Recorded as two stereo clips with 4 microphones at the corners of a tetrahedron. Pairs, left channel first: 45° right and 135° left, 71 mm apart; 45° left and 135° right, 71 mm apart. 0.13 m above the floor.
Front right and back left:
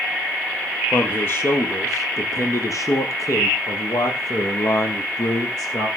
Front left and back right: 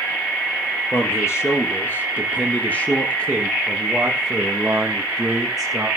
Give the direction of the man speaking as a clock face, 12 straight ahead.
12 o'clock.